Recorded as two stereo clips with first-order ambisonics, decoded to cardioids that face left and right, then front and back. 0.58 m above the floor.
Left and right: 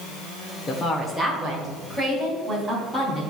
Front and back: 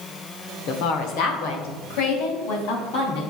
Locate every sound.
0.7 s a woman speaking: 30° left, 1.2 m; by 3.2 s 10° right, 4 m